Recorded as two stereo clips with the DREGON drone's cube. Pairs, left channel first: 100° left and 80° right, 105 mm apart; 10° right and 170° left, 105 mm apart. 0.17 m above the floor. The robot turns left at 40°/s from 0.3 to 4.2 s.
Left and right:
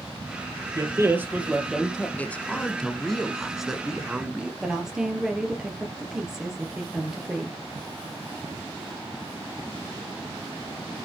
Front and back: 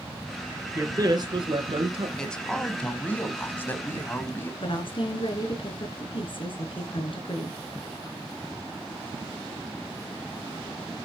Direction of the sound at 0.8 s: 130° right.